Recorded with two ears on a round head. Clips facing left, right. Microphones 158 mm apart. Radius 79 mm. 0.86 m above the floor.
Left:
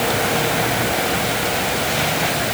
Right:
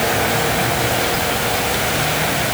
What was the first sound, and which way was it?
Only background noise.